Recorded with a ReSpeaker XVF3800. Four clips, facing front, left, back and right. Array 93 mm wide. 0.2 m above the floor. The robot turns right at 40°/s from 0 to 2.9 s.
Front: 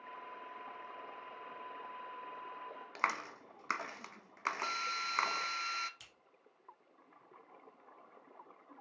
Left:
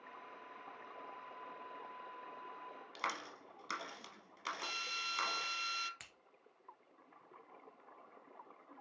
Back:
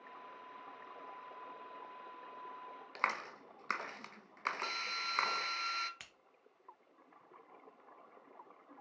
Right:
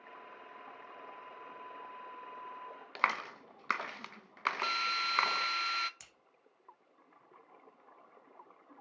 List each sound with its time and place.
3.0 s a clap: 80° right, 1.1 m
4.6 s a drill: 85° right, 0.6 m
6.0 s scissors: 145° left, 1.3 m